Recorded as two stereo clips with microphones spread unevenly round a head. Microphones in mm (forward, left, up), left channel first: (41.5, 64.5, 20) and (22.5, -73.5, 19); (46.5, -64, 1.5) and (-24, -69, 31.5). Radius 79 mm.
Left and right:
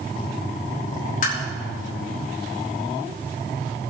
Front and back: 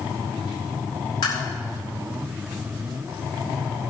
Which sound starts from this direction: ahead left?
Tapping, at 1.2 s.